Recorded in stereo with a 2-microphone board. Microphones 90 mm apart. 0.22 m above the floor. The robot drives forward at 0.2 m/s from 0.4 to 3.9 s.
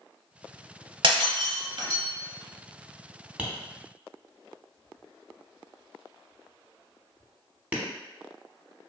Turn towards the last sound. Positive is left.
turn(degrees=-15)  # may be behind; listen again after turning